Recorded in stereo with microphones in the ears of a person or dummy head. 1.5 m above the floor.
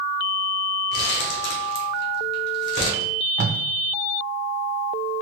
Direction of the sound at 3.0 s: 30° right (ahead or behind).